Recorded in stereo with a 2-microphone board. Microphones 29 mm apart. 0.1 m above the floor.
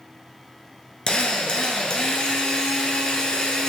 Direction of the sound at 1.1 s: 25° left (ahead or behind).